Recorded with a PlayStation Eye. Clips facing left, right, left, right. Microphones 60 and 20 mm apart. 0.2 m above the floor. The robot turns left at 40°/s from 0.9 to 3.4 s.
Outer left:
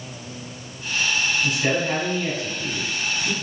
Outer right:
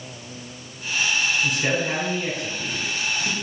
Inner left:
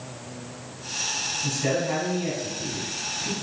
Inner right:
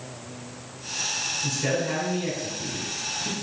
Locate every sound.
1.4 s a man speaking: centre (ahead or behind), 1.5 m; by 3.3 s 20° right (ahead or behind), 1.5 m